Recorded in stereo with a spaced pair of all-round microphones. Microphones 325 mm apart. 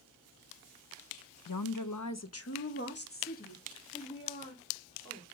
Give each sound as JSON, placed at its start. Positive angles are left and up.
{"t": 1.5, "sound": "a woman speaking", "side_deg": 80, "distance_m": 0.7}